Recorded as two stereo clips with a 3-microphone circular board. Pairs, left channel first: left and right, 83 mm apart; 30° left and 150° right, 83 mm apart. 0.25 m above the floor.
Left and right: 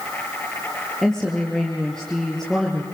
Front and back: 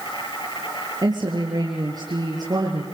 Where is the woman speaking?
175° left, 4.5 m.